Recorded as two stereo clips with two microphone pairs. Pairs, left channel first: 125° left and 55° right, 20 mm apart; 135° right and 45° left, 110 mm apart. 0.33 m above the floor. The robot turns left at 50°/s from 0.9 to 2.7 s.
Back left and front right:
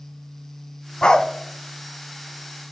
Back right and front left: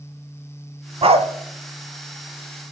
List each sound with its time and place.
1.0 s a dog barking: 80° left, 0.6 m; by 1.3 s 65° left, 0.6 m